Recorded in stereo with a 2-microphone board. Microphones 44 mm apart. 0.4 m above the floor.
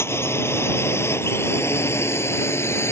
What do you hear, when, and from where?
0.0 s a drone: 75° left (ahead or behind); by 2.9 s 80° left